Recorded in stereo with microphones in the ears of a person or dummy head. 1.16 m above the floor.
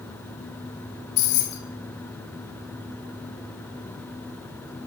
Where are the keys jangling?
70° left (ahead or behind), 0.6 m.